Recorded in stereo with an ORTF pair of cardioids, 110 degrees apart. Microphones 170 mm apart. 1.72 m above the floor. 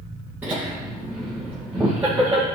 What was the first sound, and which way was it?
Laughter, 10° right.